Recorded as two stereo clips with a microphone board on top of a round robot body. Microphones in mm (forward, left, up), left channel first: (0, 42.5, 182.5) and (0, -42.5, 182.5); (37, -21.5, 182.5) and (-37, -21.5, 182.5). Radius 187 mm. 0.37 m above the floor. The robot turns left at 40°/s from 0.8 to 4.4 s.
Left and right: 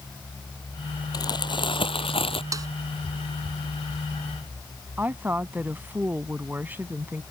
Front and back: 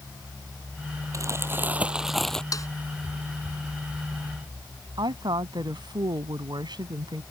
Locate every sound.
1.1 s crumpling: 135° left; by 2.4 s 80° left
2.5 s a snare drum: 40° right; by 2.7 s 45° right
5.0 s a woman speaking: 160° right